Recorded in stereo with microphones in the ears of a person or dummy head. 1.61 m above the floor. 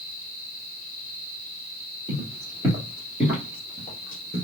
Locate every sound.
2.1 s footsteps: 20° right (ahead or behind), 3 m; by 4.4 s 5° left (ahead or behind), 1.8 m